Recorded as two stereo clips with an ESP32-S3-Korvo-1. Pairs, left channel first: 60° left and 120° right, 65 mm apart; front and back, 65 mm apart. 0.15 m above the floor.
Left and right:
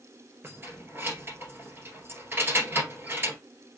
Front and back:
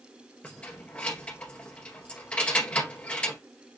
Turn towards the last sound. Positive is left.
turn(degrees=-70)